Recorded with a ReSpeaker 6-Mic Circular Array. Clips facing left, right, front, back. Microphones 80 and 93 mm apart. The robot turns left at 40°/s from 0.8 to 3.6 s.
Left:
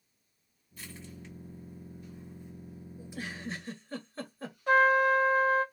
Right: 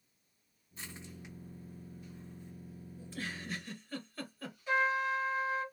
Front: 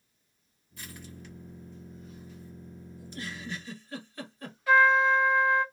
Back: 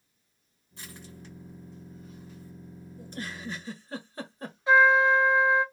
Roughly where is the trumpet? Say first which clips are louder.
Left 8 dB, back 2 dB; behind left.